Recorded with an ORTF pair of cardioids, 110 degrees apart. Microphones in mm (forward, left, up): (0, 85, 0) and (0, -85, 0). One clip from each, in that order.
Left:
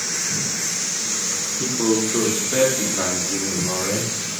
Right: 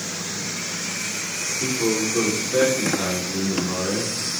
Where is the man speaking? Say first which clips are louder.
Left 2 dB; 70° left, 1.2 m; by 4.2 s 75° left, 3 m.